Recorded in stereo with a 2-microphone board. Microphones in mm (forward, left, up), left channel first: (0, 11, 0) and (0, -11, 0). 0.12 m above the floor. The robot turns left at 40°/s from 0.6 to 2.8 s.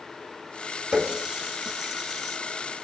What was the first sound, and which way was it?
A running tap, 40° right (ahead or behind).